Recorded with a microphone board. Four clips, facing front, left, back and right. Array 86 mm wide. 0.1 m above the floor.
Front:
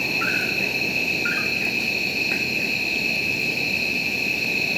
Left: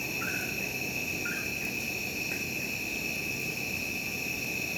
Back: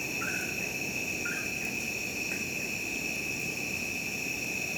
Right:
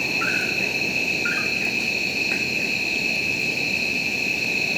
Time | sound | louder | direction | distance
0.0 | an insect | right 10 dB, front 10 dB | 45° right | ?